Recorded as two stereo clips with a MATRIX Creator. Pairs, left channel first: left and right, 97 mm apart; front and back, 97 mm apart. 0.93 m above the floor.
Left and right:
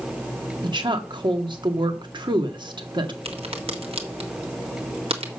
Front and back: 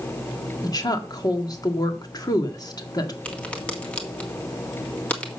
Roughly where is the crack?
Right.